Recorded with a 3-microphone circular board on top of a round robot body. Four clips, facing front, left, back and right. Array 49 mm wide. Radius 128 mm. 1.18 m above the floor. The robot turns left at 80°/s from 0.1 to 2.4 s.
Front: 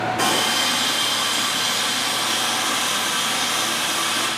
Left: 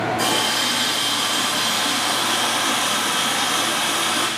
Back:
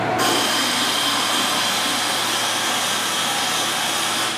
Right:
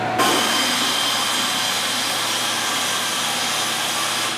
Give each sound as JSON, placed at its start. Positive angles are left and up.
{"t": 0.2, "sound": "a running tap", "azimuth_deg": -80, "distance_m": 1.3}